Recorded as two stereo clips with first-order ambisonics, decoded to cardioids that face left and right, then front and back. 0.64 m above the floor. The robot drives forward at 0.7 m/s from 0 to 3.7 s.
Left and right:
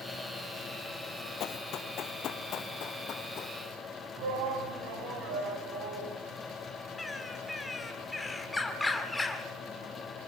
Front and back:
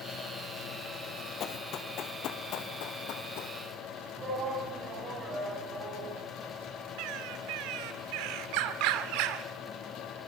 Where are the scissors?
No scissors in this recording.